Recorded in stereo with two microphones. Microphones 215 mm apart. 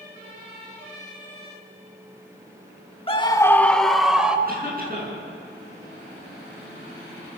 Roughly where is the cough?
Right.